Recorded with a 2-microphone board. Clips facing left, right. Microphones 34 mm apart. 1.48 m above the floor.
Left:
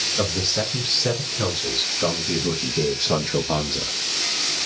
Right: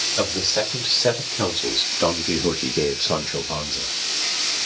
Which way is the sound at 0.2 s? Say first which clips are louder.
Right 3 dB; 85° right.